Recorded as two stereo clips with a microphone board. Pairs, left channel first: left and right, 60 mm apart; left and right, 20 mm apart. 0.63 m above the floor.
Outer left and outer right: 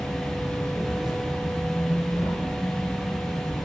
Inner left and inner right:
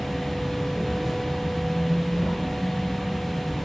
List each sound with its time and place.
0.0 s an insect: 5° right (ahead or behind), 2 m